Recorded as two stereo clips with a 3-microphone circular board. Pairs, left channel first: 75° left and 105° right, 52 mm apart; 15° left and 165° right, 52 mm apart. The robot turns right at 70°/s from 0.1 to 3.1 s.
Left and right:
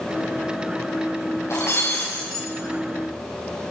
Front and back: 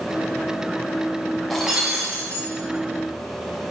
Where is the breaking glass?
100° left, 4.5 m; by 2.4 s 165° left, 4.5 m.